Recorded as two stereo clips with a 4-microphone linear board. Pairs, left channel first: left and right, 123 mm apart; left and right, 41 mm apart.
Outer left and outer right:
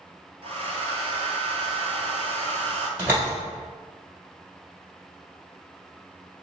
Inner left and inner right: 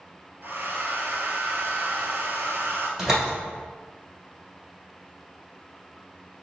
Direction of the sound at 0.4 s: 60° right (ahead or behind).